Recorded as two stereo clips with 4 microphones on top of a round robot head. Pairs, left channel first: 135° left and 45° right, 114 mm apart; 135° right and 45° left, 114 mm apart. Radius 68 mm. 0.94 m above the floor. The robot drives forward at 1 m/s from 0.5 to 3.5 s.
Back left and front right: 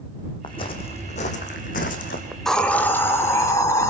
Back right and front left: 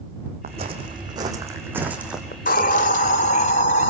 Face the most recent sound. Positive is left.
turn(degrees=-160)